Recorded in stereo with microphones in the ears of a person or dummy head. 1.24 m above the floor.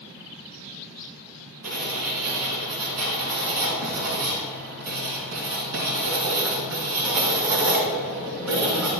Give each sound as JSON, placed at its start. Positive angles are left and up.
{"t": 1.6, "sound": "writing", "side_deg": -80, "distance_m": 4.0}